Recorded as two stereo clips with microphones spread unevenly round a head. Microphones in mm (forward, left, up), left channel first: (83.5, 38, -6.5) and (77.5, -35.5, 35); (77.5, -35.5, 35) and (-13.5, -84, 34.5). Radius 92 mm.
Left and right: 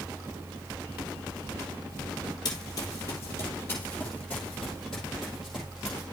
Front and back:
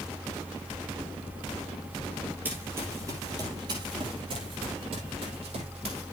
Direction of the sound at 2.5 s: 145° left.